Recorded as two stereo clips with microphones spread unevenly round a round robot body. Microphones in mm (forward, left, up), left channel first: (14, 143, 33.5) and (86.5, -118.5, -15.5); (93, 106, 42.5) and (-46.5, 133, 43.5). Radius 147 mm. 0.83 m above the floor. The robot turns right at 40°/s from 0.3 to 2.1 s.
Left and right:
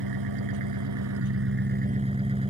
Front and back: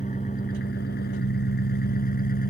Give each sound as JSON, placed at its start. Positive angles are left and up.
{"t": 0.0, "sound": "an engine running", "azimuth_deg": -75}